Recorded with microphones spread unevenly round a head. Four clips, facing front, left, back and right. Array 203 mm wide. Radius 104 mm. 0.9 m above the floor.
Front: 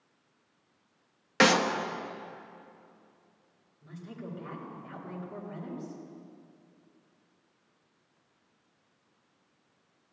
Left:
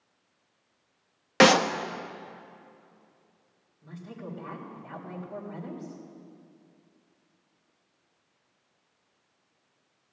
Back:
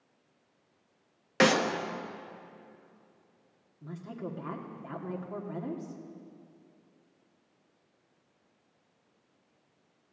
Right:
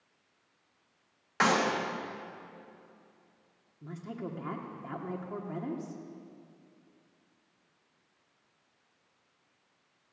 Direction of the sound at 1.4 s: 85° left.